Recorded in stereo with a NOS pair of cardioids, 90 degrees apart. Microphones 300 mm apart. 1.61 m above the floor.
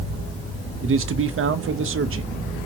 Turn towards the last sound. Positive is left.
turn(degrees=-45)